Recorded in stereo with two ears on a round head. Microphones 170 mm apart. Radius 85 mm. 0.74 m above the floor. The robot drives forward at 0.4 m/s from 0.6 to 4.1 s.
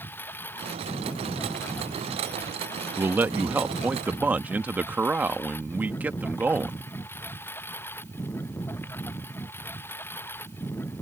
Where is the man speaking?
10° right (ahead or behind).